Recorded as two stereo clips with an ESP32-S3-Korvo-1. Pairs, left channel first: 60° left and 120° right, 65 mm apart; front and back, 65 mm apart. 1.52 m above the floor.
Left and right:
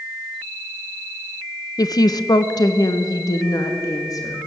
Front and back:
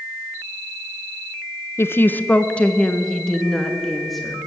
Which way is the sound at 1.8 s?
50° left.